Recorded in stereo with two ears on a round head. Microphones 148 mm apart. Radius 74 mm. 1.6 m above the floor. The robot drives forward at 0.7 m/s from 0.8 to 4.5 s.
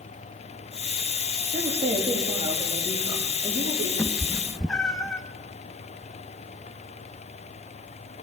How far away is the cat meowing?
About 1.0 m.